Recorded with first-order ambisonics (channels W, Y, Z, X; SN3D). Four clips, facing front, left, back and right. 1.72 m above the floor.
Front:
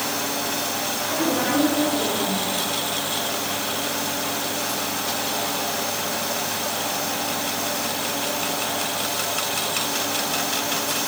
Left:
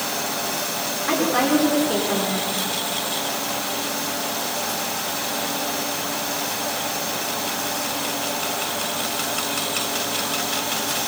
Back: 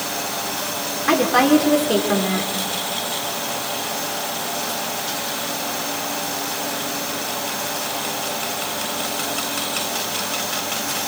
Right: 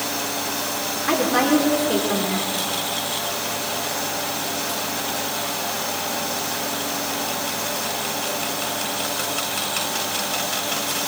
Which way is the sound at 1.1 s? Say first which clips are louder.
Right 1 dB, back 9 dB; 170° right.